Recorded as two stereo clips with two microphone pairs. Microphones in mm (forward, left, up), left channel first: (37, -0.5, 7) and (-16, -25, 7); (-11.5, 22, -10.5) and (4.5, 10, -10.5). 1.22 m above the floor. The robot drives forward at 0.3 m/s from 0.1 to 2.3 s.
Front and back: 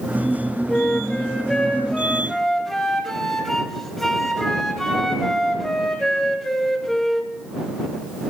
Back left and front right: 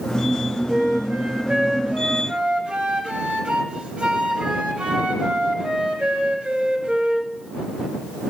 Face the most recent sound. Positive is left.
turn(degrees=-60)